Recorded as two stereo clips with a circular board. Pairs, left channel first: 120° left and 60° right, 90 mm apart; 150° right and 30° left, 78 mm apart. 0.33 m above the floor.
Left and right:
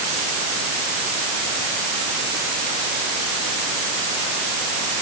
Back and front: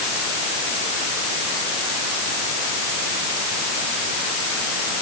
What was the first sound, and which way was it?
Only background noise.